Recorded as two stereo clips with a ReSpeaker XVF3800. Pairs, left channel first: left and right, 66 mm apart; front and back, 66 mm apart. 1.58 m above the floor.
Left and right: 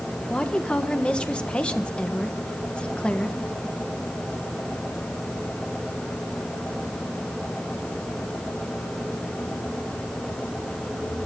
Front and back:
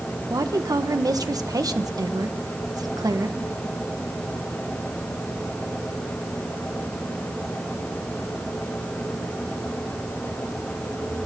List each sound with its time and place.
0.3 s a woman speaking: 165° left, 1.3 m